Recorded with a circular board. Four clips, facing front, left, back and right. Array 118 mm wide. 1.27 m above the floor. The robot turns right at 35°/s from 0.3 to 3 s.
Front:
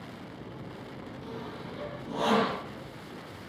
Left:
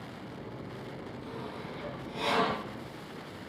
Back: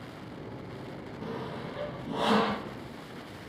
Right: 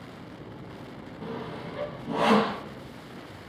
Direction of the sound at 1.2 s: 135° right.